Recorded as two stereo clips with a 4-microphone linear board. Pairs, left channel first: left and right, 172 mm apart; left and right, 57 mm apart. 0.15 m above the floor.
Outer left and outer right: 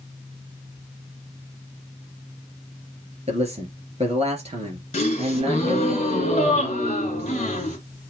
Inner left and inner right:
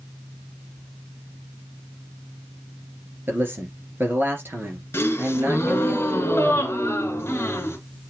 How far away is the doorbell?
I don't hear a doorbell.